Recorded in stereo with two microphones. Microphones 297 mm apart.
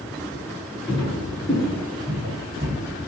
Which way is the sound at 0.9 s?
20° left (ahead or behind).